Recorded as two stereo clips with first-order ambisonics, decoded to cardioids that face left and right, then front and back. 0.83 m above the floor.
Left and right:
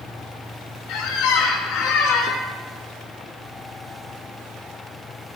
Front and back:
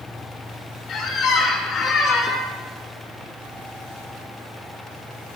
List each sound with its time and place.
0.9 s a squeak: 60° left, 1.0 m